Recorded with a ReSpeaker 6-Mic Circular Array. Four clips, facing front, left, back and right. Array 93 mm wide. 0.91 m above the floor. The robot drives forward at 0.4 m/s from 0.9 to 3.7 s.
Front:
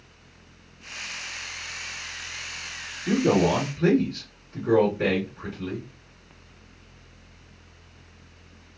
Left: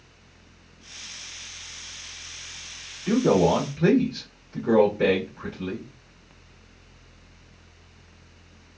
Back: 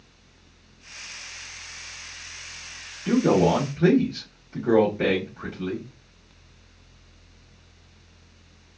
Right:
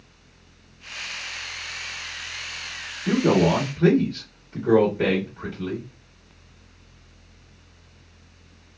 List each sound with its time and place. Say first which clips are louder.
3.0 s a man speaking: even, back 2 dB; 125° right, 1.3 m; by 5.9 s 135° right, 1.5 m